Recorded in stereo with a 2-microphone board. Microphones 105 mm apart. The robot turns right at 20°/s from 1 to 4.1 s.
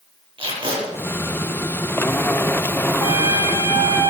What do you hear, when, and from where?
0.4 s tape being pulled: 55° right (ahead or behind), 7 m
3.0 s a trumpet: 45° left (ahead or behind), 1.5 m; by 4.1 s 30° left (ahead or behind), 1.5 m